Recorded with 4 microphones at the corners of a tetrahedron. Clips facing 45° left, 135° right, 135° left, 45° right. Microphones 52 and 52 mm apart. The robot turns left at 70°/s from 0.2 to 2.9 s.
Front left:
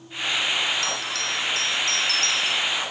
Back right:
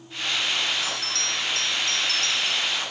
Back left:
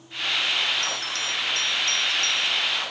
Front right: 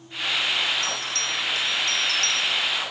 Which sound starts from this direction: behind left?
A bell, at 0.8 s.